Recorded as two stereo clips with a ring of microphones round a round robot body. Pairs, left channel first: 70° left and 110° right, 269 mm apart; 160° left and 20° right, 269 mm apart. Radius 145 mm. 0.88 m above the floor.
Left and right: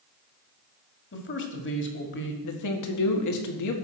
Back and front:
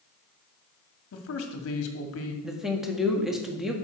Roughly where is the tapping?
No tapping in this recording.